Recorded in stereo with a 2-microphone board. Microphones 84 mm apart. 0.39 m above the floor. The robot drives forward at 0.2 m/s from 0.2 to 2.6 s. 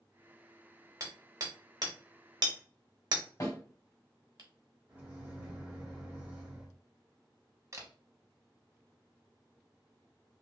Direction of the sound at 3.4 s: 40° left (ahead or behind).